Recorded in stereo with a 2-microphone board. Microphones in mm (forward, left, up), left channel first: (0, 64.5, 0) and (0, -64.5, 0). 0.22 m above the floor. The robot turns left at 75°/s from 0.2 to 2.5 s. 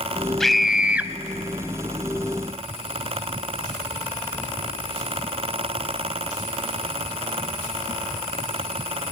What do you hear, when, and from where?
0.4 s a scream: 5° left (ahead or behind), 1.0 m; by 1.1 s 15° right (ahead or behind), 1.0 m